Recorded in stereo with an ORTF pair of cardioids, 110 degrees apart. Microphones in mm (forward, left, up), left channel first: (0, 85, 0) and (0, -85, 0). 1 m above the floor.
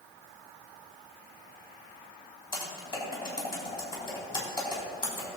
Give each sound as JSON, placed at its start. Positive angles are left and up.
{"t": 2.5, "sound": "typing on a keyboard", "azimuth_deg": 30, "distance_m": 3.5}